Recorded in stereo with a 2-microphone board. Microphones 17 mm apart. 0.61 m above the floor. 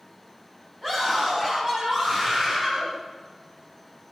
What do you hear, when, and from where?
0.8 s a scream: 30° right (ahead or behind), 4.5 m; by 2.9 s 45° right (ahead or behind), 4 m